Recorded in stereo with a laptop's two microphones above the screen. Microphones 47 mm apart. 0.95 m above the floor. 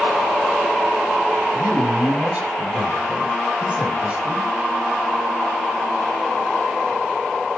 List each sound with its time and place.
1.5 s a man speaking: 25° right (ahead or behind), 6 m